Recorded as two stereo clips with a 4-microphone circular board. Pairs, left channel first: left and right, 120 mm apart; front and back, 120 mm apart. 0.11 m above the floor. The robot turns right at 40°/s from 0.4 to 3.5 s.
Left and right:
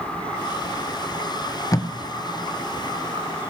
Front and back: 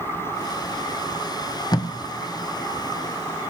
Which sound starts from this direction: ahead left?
Tape being pulled, at 1.7 s.